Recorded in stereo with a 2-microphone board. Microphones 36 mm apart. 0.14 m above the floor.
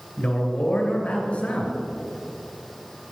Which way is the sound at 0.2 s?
35° left (ahead or behind).